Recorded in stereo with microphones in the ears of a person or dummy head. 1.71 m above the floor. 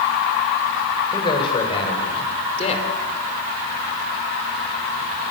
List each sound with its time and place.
1.1 s a man speaking: 30° left (ahead or behind), 7 m; by 2.9 s 45° left (ahead or behind), 5.5 m